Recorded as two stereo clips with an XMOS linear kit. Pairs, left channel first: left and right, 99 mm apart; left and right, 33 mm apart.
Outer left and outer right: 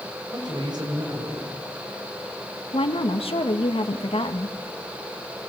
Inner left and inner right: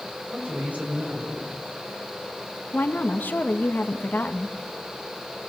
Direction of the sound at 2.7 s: 75° left (ahead or behind).